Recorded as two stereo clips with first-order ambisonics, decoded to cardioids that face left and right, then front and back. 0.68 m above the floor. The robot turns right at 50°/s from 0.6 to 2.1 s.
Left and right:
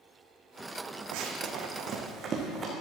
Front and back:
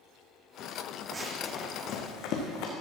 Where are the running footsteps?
110° right, 1.6 m; by 2.7 s 20° right, 2.5 m.